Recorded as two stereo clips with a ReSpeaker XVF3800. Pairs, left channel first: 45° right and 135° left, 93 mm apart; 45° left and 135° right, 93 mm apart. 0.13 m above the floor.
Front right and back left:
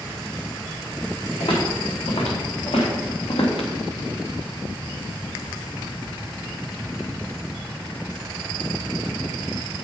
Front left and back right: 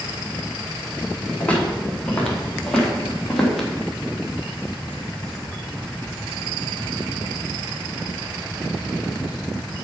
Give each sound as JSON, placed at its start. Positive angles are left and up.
{"t": 1.4, "sound": "footsteps", "azimuth_deg": -35, "distance_m": 4.5}